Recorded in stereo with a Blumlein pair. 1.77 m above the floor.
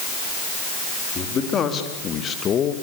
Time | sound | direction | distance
1.1 | a man speaking | 25° left | 4.5 m